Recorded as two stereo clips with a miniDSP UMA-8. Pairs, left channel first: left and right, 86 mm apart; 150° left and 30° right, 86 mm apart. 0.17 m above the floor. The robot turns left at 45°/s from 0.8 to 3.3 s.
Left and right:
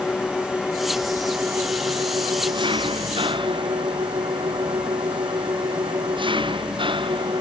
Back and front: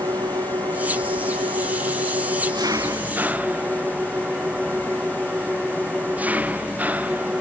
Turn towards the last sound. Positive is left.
turn(degrees=-105)